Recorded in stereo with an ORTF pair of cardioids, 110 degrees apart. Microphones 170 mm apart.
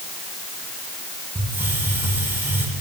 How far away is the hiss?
About 6.5 m.